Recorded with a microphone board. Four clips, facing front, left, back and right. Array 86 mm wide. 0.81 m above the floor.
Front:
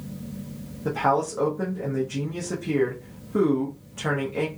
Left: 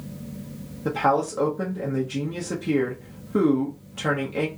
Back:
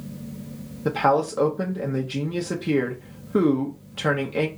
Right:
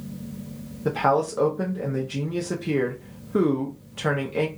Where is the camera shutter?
I don't hear a camera shutter.